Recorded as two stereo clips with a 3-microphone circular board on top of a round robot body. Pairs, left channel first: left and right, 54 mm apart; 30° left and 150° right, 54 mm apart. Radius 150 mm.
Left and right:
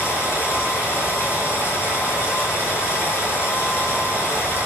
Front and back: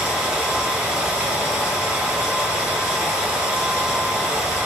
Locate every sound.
0.0 s running water: 140° left, 4.5 m